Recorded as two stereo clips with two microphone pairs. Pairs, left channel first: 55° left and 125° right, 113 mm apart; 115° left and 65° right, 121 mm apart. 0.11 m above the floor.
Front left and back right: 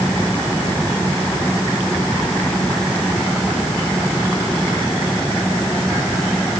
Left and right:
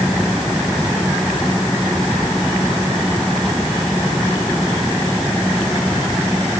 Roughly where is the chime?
I don't hear a chime.